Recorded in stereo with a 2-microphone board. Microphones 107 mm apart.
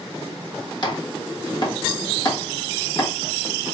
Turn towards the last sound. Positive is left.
turn(degrees=45)  # may be behind; listen again after turning